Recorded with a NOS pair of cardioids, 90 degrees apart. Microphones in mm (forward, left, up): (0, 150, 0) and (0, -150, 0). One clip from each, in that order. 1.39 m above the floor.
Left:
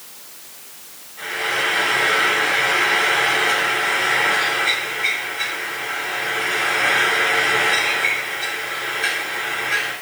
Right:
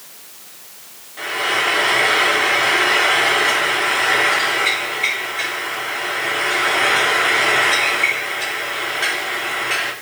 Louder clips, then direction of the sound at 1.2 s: Right 3 dB; 70° right.